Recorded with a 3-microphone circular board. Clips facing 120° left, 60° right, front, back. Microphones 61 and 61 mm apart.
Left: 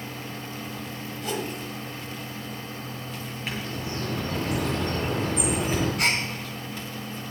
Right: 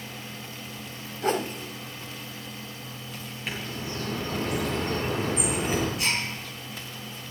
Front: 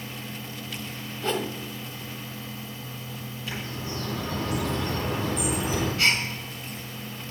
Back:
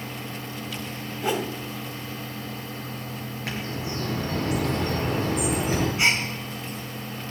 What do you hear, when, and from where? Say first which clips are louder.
1.2 s a whoosh: right 5 dB, back 2 dB; 105° right, 1.0 m
3.5 s a bird: left 1 dB, back 3 dB; 150° right, 7 m
6.0 s a gasp: left 3 dB, even; 115° left, 2.5 m